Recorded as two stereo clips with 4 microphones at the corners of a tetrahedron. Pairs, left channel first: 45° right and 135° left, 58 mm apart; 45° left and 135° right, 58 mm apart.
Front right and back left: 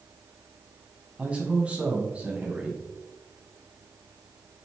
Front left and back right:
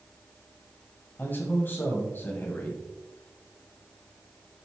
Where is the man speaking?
80° left, 1.4 m.